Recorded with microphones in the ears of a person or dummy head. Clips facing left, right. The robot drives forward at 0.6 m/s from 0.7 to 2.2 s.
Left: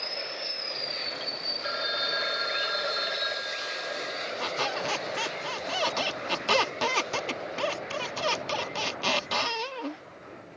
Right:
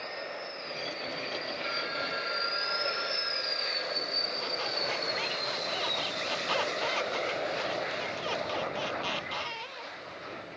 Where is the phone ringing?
80° left.